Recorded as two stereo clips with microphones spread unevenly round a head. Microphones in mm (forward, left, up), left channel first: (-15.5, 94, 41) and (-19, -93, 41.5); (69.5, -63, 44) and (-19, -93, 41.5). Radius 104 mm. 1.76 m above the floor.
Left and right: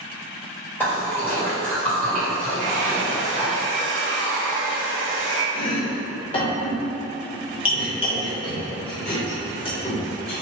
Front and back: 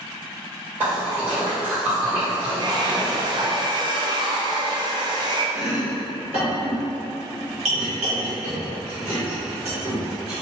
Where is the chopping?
150° left, 1.0 m.